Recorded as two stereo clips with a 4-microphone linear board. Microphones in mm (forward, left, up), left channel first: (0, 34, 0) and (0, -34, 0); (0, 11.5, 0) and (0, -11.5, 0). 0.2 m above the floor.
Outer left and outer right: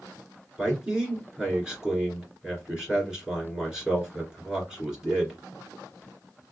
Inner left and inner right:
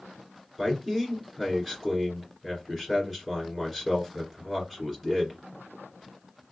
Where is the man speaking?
10° right (ahead or behind), 2 m.